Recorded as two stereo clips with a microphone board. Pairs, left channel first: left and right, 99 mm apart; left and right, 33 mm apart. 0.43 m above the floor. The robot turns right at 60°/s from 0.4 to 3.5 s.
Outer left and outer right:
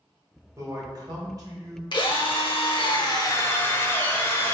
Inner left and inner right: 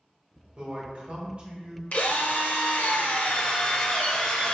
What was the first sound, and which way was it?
A man speaking, 125° right.